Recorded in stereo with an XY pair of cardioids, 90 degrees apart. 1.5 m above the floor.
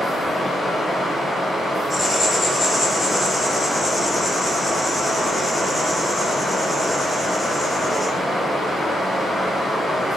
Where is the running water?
30° left, 1.2 m.